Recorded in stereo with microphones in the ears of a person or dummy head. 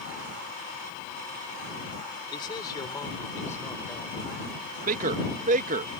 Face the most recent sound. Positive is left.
turn(degrees=-45)  # may be behind; listen again after turning